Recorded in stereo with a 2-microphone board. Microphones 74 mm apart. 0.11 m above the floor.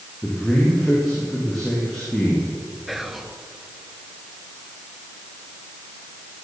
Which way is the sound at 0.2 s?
5° left (ahead or behind).